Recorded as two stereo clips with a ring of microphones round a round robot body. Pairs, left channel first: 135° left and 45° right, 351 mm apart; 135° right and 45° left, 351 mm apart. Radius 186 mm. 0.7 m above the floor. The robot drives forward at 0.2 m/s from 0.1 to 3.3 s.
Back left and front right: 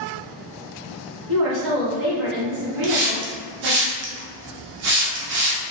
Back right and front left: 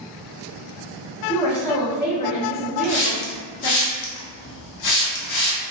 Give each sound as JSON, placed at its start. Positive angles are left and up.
{"t": 1.3, "sound": "a woman speaking", "azimuth_deg": -55, "distance_m": 1.7}
{"t": 2.8, "sound": "a hiss", "azimuth_deg": -85, "distance_m": 0.7}